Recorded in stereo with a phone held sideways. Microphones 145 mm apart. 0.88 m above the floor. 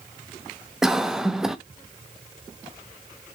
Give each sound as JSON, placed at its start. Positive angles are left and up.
{"t": 0.8, "sound": "a cough", "side_deg": -5, "distance_m": 0.7}